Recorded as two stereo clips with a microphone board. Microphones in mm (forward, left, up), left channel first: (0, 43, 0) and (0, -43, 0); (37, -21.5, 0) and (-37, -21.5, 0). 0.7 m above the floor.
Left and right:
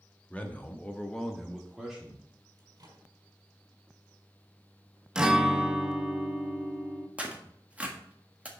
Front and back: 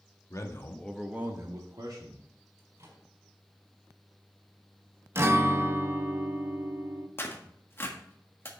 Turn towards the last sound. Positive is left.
turn(degrees=-25)